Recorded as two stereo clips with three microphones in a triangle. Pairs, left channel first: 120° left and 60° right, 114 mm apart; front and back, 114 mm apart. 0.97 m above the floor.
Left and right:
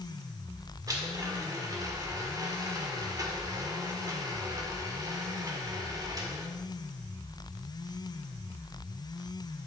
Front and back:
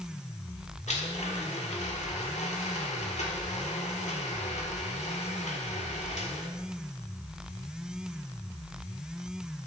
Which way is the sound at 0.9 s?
5° right.